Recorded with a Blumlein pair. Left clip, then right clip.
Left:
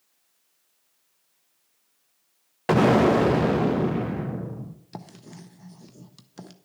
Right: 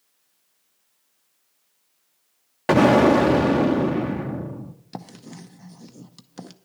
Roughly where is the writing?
Ahead.